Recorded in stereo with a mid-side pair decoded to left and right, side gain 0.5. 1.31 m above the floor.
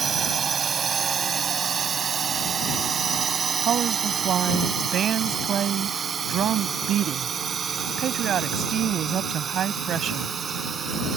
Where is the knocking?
No knocking in this recording.